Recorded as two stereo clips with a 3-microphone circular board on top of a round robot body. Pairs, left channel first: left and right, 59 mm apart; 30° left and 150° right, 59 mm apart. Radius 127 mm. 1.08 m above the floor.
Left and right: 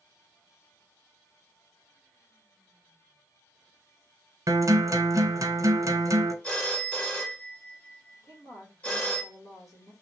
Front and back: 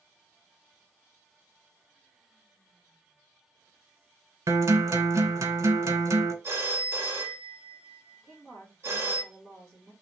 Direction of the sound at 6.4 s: 160° left.